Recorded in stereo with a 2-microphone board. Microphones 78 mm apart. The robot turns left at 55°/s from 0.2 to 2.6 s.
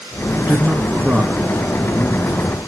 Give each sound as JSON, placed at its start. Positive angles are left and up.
{"t": 0.4, "sound": "a man speaking", "side_deg": -25, "distance_m": 1.6}